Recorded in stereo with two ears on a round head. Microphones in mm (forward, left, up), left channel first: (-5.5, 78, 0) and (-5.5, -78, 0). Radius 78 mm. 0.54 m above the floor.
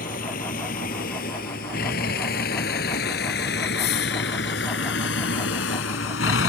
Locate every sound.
0.0 s a vehicle: 50° left (ahead or behind); by 6.5 s 85° left